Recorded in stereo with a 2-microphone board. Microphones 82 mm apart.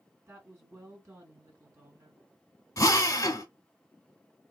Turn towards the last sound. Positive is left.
turn(degrees=45)  # may be behind; listen again after turning